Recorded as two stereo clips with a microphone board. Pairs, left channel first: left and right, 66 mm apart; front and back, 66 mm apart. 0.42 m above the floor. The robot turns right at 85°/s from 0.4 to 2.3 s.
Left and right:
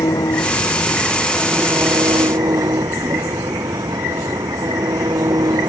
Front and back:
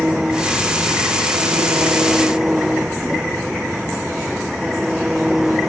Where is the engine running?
100° left; by 5.7 s 100° right.